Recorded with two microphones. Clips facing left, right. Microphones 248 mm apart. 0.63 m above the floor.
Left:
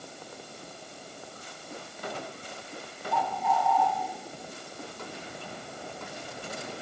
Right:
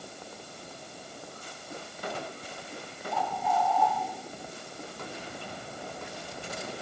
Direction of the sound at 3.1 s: 70° left (ahead or behind).